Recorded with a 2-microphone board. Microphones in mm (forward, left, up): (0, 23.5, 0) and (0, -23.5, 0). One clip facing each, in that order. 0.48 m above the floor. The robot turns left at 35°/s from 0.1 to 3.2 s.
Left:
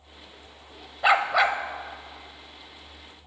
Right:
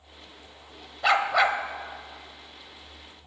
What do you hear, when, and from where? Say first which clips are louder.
1.0 s a dog barking: left 1 dB; 15° left (ahead or behind), 0.6 m; by 1.6 s 5° right (ahead or behind), 0.6 m